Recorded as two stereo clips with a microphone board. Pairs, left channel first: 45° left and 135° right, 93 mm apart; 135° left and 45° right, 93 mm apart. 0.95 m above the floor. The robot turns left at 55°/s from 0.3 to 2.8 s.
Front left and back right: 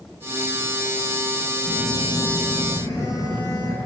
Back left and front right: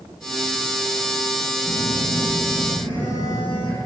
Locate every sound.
1.6 s a phone buzzing: 155° left, 9.5 m; by 3.8 s 90° left, 9.5 m